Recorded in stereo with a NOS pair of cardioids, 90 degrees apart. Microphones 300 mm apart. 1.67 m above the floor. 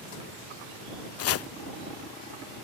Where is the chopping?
50° left.